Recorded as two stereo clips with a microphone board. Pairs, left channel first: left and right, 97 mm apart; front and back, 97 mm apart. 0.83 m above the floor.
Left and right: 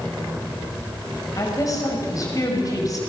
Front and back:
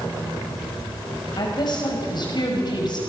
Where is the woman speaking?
40° left, 5.5 m.